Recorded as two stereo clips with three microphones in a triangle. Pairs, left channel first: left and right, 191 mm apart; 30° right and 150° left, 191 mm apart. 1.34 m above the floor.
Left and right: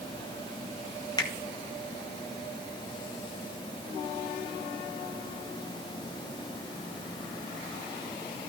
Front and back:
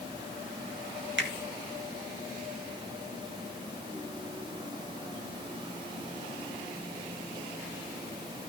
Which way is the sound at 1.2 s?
160° left.